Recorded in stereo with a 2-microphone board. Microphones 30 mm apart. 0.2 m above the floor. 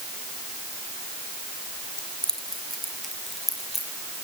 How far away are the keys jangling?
About 3 m.